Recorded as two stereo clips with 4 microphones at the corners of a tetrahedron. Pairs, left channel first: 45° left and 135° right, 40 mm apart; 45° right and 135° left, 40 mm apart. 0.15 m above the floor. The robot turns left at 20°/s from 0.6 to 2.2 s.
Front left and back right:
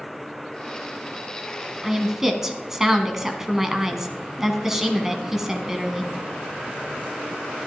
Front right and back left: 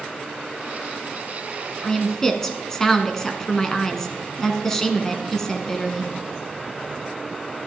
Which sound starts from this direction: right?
A woman speaking, at 1.8 s.